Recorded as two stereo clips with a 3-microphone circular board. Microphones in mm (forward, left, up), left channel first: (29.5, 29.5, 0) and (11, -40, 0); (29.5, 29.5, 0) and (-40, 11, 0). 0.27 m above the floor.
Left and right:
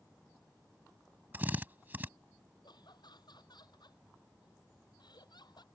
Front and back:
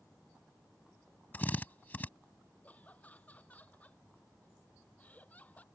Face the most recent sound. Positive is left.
turn(degrees=85)